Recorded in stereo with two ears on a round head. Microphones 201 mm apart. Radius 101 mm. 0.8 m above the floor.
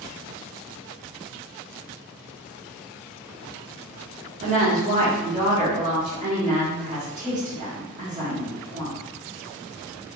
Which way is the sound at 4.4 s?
35° right (ahead or behind).